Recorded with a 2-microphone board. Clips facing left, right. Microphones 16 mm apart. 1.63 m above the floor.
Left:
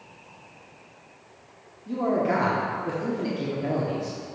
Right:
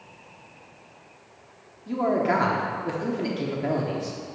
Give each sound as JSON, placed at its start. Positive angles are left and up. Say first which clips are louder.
{"t": 1.9, "sound": "a man speaking", "louder": "right 1 dB", "side_deg": -20, "distance_m": 0.8}